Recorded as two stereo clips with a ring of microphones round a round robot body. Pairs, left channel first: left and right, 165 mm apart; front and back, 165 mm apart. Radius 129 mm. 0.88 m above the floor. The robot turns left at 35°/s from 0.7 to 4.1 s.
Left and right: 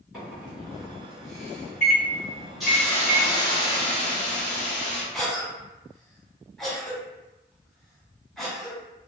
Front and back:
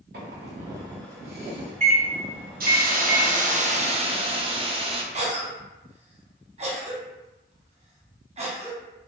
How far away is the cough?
About 0.9 m.